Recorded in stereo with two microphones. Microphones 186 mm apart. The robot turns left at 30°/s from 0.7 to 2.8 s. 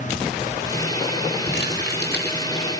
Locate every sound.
1.5 s crumpling: 90° left, 4.5 m; by 2.5 s 55° left, 4.5 m